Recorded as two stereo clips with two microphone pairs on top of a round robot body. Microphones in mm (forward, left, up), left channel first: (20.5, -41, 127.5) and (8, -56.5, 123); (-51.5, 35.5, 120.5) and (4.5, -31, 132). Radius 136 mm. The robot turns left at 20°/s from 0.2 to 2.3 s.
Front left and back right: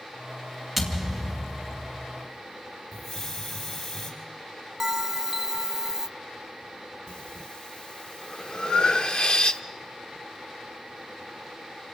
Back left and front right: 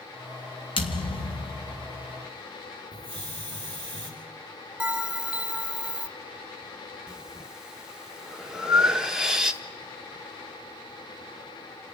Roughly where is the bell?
Behind right.